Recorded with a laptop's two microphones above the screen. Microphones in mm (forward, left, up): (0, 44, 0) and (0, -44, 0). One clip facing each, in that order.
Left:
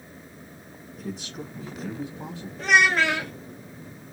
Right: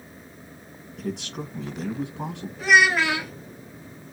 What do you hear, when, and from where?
1.0 s a man speaking: 65° right (ahead or behind), 1.1 m
2.6 s a child speaking: 5° right (ahead or behind), 1.0 m